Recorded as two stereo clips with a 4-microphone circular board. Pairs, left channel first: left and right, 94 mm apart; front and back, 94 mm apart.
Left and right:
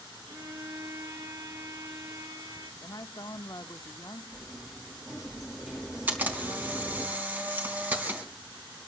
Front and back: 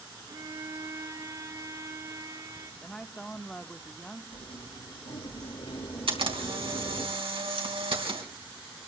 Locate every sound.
0.3 s a violin: 135° right, 3 m
2.8 s a woman speaking: 75° left, 0.8 m
4.3 s a sliding door: 5° right, 4 m
6.1 s a camera shutter: 160° right, 3 m